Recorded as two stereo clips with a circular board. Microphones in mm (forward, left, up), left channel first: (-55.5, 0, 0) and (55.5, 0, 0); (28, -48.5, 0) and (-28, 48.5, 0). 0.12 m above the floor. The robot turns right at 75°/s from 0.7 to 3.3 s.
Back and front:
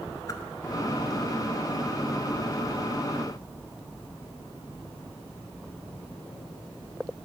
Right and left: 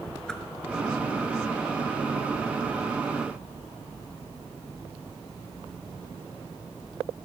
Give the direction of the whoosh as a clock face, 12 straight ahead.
5 o'clock.